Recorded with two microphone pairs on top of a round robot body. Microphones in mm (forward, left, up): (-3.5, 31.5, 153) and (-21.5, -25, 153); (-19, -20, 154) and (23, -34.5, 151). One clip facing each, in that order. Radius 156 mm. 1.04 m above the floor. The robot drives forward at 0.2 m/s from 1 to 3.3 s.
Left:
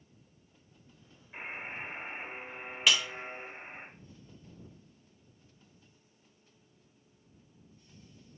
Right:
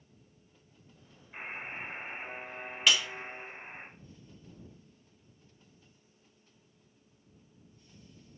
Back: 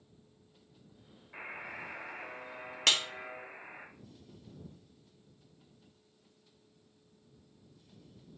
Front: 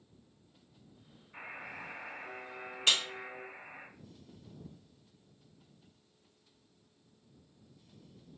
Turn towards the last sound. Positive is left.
turn(degrees=165)